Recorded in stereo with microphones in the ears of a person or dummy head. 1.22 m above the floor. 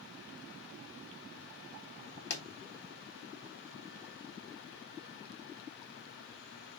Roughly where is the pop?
Left.